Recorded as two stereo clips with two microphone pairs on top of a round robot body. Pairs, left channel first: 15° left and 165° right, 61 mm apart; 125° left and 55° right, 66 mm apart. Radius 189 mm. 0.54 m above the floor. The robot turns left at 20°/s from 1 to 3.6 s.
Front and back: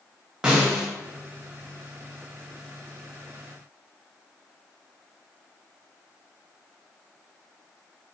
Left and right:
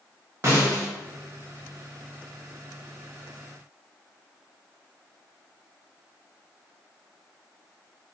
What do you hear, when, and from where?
0.4 s a snare drum: 85° right, 1.0 m